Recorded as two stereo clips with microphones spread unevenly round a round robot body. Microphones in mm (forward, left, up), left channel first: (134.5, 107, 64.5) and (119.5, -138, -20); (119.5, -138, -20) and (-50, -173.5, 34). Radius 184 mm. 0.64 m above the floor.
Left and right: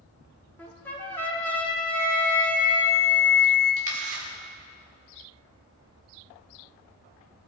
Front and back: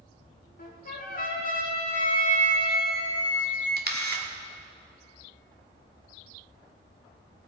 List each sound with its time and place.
0.6 s a trumpet: 5° right, 2.0 m
1.9 s a flute: 135° left, 3.5 m
3.8 s a camera shutter: 135° right, 1.6 m